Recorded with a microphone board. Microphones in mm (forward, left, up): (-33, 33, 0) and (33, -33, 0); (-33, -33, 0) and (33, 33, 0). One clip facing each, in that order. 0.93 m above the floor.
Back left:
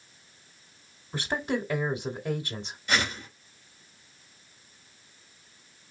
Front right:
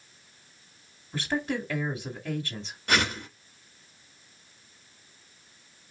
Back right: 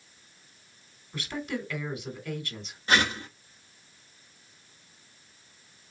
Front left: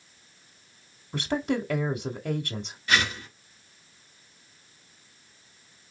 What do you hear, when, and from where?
1.1 s a woman speaking: 65° left, 2.0 m
2.9 s a whoosh: 75° right, 3 m